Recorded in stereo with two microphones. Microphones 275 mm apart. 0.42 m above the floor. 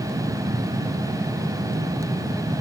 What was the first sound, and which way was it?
Only background noise.